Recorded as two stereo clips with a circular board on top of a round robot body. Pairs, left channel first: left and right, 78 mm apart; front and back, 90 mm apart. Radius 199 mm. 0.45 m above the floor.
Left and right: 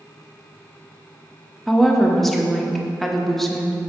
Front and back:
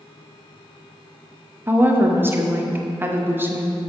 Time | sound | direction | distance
1.7 | a woman speaking | 170° left | 1.0 m